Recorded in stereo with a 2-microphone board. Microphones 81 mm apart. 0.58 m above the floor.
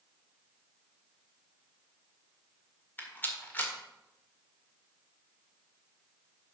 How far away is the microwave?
No microwave in this recording.